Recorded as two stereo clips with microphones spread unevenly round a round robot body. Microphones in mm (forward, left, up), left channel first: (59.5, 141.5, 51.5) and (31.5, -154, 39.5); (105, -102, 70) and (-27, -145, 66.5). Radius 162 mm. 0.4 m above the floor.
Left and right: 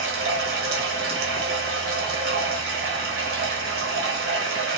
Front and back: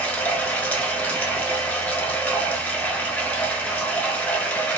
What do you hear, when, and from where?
0.0 s running water: 60° right, 1.4 m